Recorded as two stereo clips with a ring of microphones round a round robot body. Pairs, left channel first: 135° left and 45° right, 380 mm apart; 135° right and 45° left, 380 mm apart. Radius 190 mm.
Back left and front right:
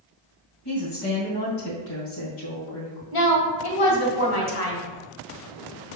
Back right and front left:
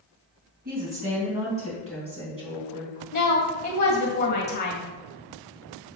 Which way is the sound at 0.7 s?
110° left.